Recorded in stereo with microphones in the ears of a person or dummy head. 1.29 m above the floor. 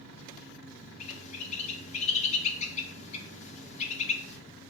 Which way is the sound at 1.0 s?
35° left (ahead or behind).